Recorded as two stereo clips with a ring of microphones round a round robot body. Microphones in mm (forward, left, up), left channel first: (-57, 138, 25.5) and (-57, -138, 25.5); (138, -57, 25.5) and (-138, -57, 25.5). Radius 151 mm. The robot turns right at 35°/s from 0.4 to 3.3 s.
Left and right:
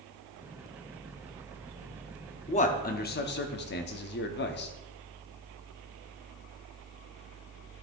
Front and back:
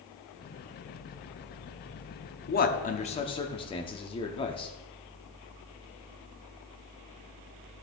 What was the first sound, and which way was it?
A man speaking, 35° left.